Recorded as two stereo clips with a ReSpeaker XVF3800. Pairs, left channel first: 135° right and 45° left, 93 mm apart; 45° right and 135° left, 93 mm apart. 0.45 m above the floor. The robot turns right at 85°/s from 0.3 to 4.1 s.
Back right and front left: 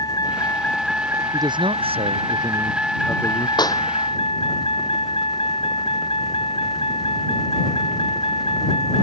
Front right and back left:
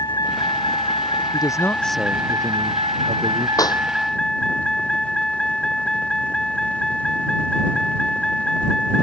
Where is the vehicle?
90° right; by 9.0 s 130° right.